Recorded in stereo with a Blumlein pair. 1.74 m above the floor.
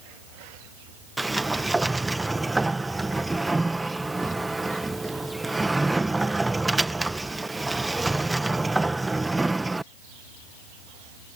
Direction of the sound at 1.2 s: 5° right.